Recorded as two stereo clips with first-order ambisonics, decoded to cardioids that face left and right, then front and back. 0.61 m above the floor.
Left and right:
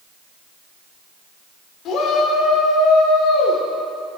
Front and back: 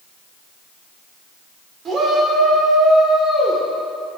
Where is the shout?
120° left, 1.9 m; by 3.6 s 75° left, 1.7 m.